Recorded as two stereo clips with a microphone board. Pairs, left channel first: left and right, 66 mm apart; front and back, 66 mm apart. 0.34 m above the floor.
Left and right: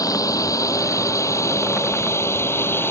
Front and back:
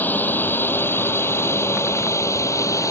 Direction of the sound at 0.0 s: 60° left.